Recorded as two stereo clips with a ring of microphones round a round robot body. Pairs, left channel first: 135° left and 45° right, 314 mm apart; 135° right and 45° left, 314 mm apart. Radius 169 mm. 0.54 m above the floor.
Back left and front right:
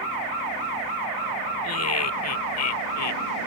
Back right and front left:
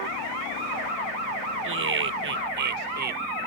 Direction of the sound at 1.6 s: 95° left.